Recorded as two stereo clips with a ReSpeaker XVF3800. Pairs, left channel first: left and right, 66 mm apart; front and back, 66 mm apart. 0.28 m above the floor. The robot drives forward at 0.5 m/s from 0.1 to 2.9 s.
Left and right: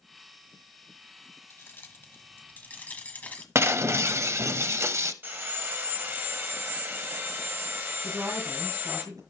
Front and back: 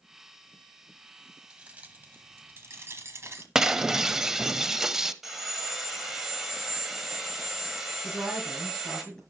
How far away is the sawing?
About 1.5 m.